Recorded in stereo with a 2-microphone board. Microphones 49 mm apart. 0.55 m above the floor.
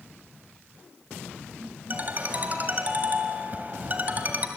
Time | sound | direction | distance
1.9 | a ringtone | 35° right (ahead or behind) | 2 m